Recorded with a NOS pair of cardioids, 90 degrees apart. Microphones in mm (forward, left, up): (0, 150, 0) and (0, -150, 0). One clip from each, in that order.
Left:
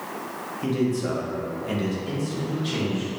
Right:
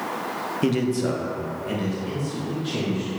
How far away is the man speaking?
About 0.7 m.